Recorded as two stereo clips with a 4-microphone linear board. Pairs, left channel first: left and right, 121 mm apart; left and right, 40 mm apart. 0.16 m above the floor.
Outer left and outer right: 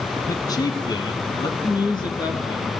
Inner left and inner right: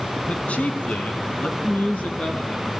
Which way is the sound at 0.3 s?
30° left (ahead or behind).